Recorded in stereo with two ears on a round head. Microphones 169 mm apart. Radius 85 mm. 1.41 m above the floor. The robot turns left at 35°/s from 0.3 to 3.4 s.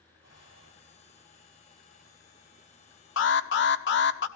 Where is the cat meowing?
No cat meowing in this recording.